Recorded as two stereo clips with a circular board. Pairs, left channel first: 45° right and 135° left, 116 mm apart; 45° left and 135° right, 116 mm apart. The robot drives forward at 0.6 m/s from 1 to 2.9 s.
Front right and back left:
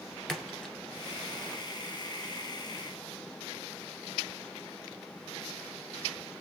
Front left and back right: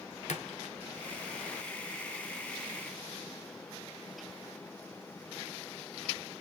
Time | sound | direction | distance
0.3 | a splash | 40° left | 1.2 m